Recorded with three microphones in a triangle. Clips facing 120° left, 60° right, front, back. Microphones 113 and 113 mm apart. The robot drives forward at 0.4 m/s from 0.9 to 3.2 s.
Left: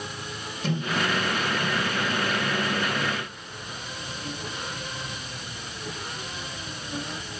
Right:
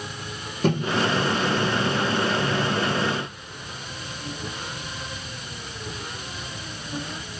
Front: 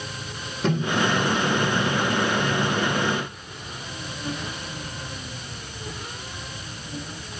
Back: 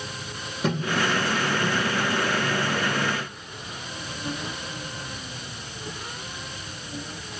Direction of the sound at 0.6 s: 95° right.